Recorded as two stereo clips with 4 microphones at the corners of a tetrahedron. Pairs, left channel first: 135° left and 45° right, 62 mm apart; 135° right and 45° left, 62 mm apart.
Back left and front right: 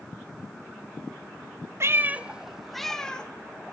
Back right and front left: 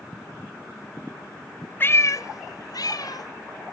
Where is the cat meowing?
80° right, 0.7 m; by 3.7 s 155° right, 1.9 m.